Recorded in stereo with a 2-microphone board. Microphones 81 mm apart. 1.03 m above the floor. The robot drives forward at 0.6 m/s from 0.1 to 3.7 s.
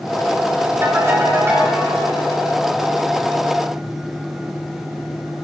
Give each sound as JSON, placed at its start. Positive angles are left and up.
{"t": 0.8, "sound": "a ringtone", "side_deg": -40, "distance_m": 5.0}